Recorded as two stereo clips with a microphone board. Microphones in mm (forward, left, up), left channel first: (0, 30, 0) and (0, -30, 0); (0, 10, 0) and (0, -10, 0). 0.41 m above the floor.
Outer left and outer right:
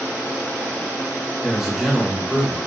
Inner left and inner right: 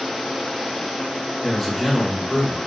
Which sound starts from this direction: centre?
A man speaking, at 1.4 s.